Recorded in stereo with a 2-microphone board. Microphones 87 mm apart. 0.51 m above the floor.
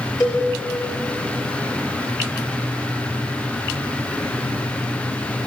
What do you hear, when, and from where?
0.2 s a cowbell: 45° left (ahead or behind), 3.5 m